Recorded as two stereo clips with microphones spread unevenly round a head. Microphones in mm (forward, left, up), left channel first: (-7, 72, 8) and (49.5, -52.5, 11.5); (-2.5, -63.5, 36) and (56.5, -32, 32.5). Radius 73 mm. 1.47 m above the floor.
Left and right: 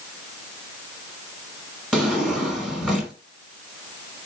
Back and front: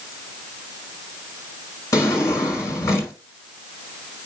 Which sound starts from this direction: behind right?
A drawer, at 1.9 s.